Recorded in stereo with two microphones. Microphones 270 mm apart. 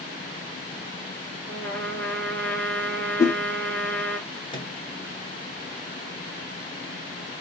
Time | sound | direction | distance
1.5 | a trumpet | 5° left (ahead or behind) | 1.2 m
3.2 | a whoosh | 10° left (ahead or behind) | 1.7 m
4.5 | a microwave | 20° left (ahead or behind) | 1.4 m